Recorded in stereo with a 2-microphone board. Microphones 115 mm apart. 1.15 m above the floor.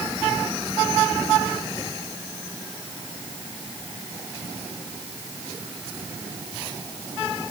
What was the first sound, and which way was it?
Only background noise.